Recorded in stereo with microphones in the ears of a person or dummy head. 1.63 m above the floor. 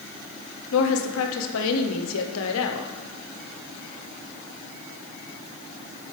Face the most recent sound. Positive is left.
turn(degrees=75)  # may be behind; listen again after turning